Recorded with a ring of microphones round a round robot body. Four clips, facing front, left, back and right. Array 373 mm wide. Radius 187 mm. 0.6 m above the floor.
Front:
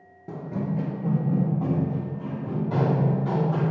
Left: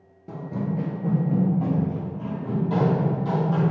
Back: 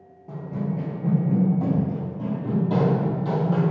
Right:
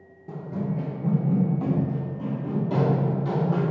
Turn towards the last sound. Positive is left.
turn(degrees=-160)